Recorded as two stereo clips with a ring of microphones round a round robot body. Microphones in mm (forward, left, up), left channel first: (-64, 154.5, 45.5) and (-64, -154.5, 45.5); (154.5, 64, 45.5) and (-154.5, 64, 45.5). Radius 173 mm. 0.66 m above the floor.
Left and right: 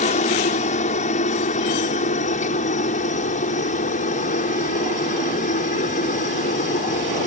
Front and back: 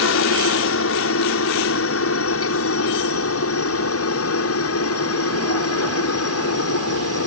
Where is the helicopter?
25° left.